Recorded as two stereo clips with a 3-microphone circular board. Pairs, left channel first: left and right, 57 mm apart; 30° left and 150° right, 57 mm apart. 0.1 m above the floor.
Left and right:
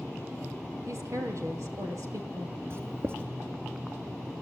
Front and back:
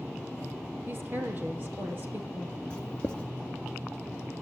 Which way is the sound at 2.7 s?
40° right.